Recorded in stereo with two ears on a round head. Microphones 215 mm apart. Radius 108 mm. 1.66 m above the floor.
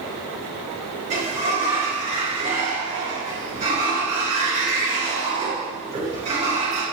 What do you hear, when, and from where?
1.1 s a sliding door: 30° right (ahead or behind), 4 m